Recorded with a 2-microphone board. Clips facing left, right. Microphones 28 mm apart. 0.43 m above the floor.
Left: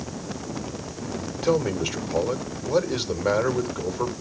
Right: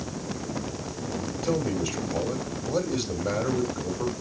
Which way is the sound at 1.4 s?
50° left (ahead or behind).